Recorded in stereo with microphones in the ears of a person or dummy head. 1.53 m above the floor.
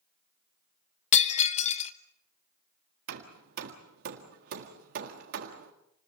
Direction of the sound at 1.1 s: 40° left (ahead or behind).